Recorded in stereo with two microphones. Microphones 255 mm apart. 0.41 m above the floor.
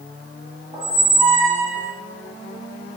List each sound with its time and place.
0.7 s a squeak: 15° right (ahead or behind), 1.4 m